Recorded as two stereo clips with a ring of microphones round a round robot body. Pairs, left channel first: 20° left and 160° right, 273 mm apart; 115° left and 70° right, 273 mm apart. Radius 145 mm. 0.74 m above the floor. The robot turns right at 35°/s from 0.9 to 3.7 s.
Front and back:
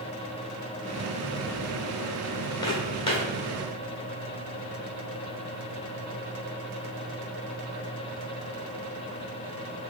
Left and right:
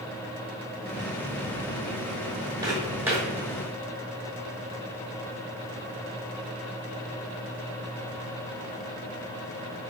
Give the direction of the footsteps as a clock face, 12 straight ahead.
1 o'clock.